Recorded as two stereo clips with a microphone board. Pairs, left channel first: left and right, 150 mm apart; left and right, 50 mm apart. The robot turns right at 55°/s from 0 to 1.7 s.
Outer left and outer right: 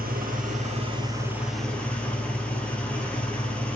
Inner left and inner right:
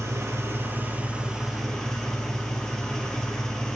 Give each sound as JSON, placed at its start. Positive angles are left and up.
{"t": 0.0, "sound": "an engine running", "azimuth_deg": -85, "distance_m": 2.5}